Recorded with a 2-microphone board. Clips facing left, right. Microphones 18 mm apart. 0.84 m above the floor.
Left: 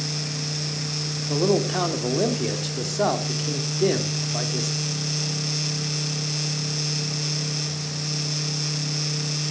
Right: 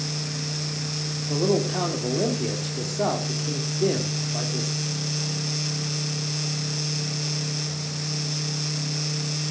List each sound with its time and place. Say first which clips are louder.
1.3 s a man speaking: left 2 dB; 30° left (ahead or behind), 2.5 m